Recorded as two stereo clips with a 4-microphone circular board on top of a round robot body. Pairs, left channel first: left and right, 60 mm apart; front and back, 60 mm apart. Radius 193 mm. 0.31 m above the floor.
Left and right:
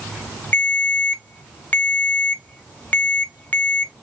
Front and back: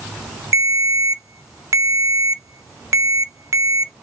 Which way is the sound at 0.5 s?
150° left.